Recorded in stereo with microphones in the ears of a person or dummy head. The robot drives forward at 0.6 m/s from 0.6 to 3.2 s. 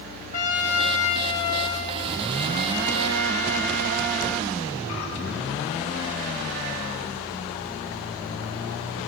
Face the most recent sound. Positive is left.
turn(degrees=15)  # may be behind; listen again after turning